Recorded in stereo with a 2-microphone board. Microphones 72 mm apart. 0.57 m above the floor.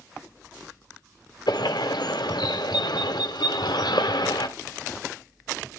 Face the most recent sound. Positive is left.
turn(degrees=75)  # may be behind; listen again after turning